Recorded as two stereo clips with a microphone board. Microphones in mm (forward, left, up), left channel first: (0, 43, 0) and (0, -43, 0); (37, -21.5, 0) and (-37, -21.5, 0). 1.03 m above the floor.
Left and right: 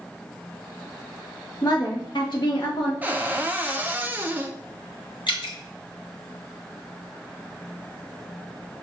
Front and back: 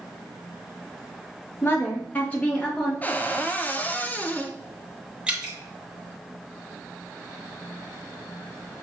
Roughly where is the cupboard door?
Ahead right.